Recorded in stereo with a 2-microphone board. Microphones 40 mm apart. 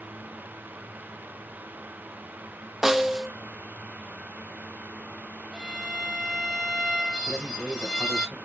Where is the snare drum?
5° right (ahead or behind), 0.5 m.